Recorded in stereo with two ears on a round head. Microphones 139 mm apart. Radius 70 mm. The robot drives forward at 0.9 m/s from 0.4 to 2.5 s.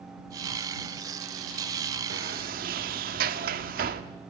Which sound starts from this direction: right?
A sliding door, at 2.1 s.